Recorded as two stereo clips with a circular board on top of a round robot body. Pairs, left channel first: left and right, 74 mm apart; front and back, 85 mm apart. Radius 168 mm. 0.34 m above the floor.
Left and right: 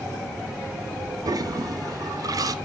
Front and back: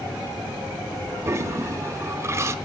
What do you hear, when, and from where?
1.2 s a toilet flushing: 125° right, 0.8 m